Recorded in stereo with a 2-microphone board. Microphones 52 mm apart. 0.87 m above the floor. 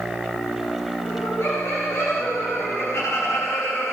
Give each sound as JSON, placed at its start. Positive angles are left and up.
{"t": 1.1, "sound": "laughter", "side_deg": 85, "distance_m": 3.0}